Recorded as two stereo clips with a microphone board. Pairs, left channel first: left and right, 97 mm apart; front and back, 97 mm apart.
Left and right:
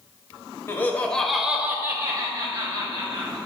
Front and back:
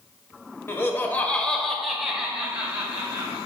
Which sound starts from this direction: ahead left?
Laughter, at 0.7 s.